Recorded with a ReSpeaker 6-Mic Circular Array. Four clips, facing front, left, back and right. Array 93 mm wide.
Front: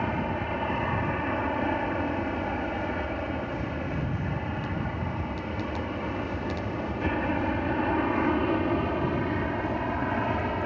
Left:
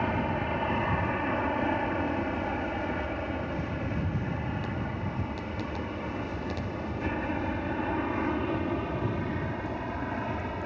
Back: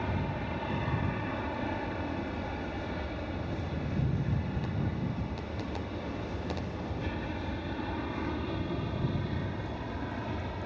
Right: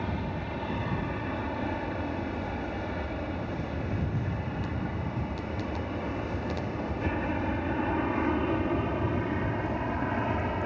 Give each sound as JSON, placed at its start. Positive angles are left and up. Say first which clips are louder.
{"t": 0.0, "sound": "an aircraft", "louder": "left 5 dB, front 6 dB", "azimuth_deg": 50}